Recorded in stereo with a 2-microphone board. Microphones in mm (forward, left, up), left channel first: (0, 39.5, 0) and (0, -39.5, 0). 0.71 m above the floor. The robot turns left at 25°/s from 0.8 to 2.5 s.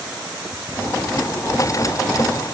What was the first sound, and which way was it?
Only background noise.